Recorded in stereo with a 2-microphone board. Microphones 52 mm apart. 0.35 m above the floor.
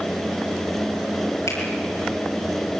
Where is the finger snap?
80° left, 8 m.